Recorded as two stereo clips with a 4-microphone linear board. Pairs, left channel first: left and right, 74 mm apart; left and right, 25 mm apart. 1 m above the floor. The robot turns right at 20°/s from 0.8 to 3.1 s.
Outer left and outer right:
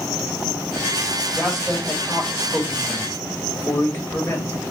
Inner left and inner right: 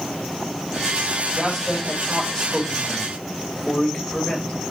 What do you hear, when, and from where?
1.4 s a man speaking: 5° right, 2 m; by 4.5 s 30° left, 2 m